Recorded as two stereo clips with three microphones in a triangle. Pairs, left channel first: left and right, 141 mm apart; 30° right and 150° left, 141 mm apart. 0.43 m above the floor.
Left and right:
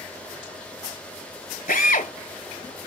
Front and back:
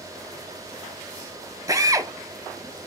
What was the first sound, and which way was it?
A drill, 85° left.